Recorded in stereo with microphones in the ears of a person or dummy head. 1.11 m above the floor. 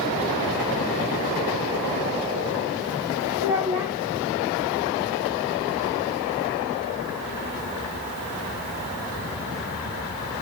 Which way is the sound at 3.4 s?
15° right (ahead or behind).